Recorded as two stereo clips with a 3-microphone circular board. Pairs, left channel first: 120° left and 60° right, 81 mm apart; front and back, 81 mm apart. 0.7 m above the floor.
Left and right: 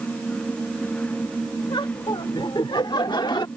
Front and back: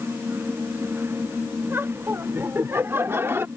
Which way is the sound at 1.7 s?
120° left.